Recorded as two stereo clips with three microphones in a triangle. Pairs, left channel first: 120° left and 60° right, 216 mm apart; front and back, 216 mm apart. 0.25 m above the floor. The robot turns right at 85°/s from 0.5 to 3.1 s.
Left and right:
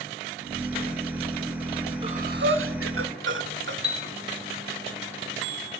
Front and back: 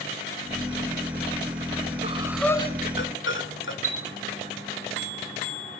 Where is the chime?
50° right, 1.7 m.